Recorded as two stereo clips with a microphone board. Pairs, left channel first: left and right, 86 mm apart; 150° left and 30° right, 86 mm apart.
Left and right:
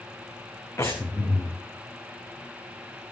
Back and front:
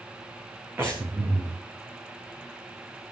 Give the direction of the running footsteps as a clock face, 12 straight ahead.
I don't hear running footsteps.